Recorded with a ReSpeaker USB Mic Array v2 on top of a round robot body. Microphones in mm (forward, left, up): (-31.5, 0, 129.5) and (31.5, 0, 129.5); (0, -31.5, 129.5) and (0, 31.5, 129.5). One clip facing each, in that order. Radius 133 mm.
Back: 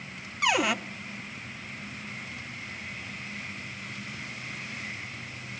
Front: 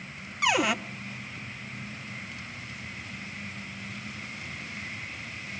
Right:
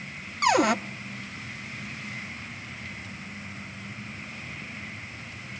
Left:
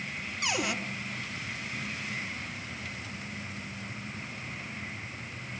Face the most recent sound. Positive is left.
turn(degrees=-90)